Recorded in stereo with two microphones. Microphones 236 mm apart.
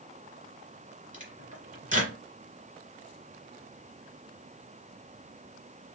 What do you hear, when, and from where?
1.1 s a microwave: 30° right (ahead or behind), 2.5 m